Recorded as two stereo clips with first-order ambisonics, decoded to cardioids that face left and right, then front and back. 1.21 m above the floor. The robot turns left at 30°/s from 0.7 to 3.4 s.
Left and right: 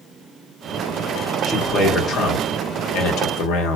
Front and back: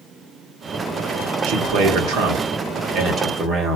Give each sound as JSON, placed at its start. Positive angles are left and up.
{"t": 1.4, "sound": "a man speaking", "azimuth_deg": 175, "distance_m": 1.3}